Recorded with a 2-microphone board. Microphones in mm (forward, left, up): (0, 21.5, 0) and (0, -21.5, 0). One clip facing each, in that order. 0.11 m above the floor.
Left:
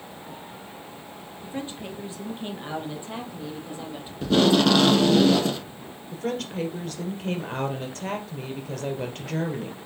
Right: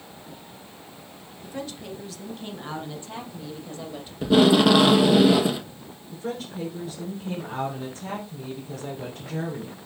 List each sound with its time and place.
1.4 s a woman speaking: 30° left (ahead or behind), 2 m; by 4.1 s 15° left (ahead or behind), 3 m
4.2 s tape being pulled: 10° right (ahead or behind), 0.7 m
6.1 s a woman speaking: 60° left (ahead or behind), 3 m